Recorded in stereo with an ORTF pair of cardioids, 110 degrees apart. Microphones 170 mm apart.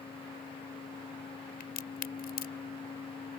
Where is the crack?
65° left.